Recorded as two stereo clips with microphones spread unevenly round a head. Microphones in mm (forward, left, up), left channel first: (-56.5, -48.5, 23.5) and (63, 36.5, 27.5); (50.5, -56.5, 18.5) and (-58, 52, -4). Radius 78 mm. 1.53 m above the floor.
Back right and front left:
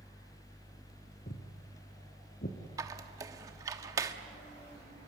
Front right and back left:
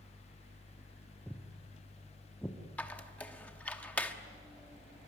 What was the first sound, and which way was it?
Footsteps, 130° right.